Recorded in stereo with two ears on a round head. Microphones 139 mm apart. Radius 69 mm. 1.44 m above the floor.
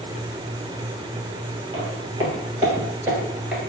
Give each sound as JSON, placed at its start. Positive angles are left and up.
{"t": 1.7, "sound": "footsteps", "side_deg": -25, "distance_m": 1.9}